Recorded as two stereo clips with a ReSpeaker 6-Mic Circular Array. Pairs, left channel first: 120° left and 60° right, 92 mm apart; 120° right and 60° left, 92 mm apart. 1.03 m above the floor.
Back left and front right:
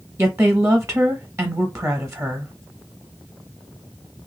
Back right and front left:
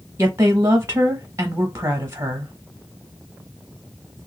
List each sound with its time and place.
0.2 s a woman speaking: straight ahead, 0.7 m